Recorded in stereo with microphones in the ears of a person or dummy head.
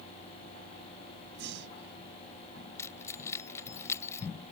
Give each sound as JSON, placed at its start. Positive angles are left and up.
{"t": 1.4, "sound": "breathing", "side_deg": -60}
{"t": 2.8, "sound": "keys jangling", "side_deg": 15}